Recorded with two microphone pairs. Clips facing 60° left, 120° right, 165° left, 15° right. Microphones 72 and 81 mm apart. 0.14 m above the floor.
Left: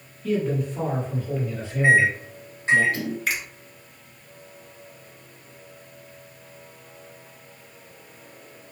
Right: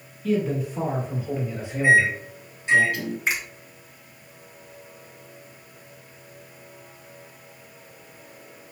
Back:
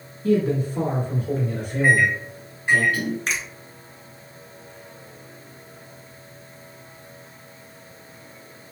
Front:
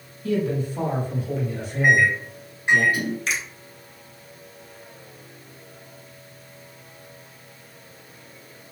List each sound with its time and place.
0.2 s a man speaking: 145° left, 2 m; by 2.8 s 175° right, 3 m
1.8 s a microwave: 50° left, 1.0 m
3.3 s a finger snap: straight behind, 1.6 m